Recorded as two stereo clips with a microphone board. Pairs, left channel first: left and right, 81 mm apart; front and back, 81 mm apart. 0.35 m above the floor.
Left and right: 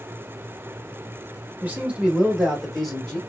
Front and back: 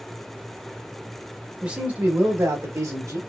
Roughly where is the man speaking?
Behind right.